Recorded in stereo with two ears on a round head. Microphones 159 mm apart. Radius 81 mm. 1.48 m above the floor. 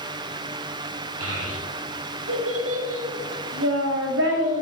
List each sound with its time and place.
1.2 s a child speaking: 80° right, 2.5 m